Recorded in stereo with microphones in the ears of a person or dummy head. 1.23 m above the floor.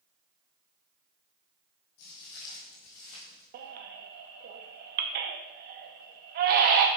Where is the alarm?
I don't hear an alarm.